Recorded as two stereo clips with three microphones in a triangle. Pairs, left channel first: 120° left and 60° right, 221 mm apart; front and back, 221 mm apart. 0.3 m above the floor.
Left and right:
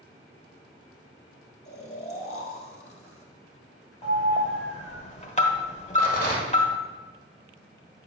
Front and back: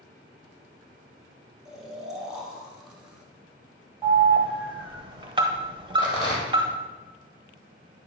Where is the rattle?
65° left, 2 m.